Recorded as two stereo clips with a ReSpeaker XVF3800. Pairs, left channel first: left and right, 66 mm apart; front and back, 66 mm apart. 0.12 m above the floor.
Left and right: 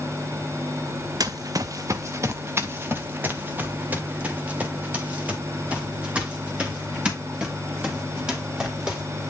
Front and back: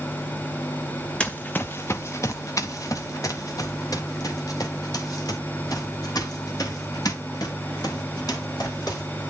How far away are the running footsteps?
About 0.7 m.